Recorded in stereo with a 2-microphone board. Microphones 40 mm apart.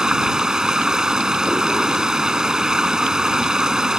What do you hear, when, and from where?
0.0 s running water: 15° right (ahead or behind)